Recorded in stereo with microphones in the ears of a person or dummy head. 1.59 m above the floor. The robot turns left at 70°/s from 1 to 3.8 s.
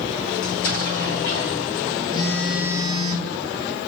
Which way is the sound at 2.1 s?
25° left.